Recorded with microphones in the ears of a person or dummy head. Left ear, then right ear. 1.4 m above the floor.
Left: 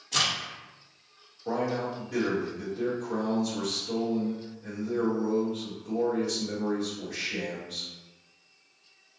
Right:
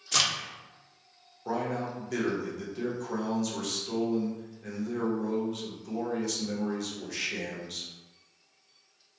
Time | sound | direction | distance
0.1 | a crack | 60° right (ahead or behind) | 1.1 m
1.4 | a man speaking | 70° right (ahead or behind) | 1.0 m